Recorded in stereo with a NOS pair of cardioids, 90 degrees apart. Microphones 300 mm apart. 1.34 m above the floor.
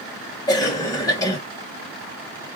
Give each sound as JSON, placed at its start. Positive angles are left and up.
{"t": 0.5, "sound": "a cough", "azimuth_deg": 15, "distance_m": 1.0}